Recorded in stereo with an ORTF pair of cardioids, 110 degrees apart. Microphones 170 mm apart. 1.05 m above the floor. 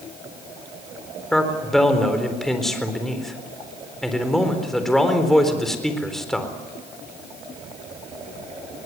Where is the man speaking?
Straight ahead, 4 m.